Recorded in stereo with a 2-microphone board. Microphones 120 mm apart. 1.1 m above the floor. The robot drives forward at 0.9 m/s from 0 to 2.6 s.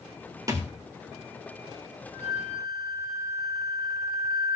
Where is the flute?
Centre (ahead or behind), 9 m.